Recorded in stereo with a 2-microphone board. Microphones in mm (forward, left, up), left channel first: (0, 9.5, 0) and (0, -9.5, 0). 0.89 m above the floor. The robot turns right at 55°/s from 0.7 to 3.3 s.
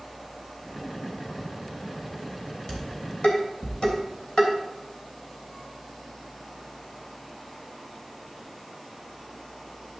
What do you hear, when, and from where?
2.7 s dishes clattering: 40° left (ahead or behind), 3 m; by 4.5 s 75° left (ahead or behind), 3 m